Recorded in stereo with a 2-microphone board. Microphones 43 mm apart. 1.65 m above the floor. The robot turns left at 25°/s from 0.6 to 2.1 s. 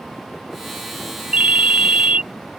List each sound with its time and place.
1.3 s a ringtone: 35° right (ahead or behind); by 2.2 s 30° right (ahead or behind)